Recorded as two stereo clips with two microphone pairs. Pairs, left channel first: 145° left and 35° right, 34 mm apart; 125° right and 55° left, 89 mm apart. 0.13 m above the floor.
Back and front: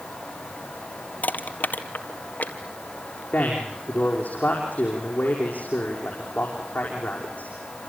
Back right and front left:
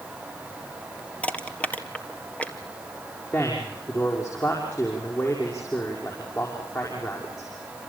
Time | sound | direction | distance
1.2 | crushing | 160° left | 1.6 m
3.3 | a man speaking | straight behind | 6 m